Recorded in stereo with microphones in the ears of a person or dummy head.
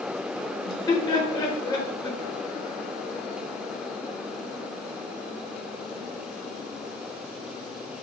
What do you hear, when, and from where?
0.7 s laughter: 15° left (ahead or behind), 1.0 m